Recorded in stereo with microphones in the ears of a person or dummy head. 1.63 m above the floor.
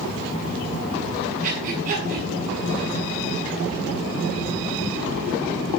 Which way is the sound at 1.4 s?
45° right (ahead or behind).